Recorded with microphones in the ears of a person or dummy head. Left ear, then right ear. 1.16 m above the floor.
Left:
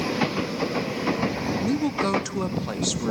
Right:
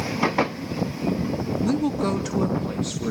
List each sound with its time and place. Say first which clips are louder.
1.6 s a woman speaking: right 1 dB; 5° right (ahead or behind), 0.5 m; by 3.1 s 35° left (ahead or behind), 1.3 m